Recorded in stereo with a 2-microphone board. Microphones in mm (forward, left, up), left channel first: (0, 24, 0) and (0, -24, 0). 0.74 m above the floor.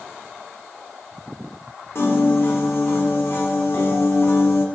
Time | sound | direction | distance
1.9 | a piano | 55° left (ahead or behind) | 0.9 m